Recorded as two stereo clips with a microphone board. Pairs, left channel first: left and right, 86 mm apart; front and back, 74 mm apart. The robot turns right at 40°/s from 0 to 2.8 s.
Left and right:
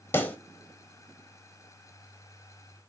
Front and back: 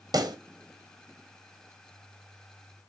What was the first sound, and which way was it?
A pop, 155° left.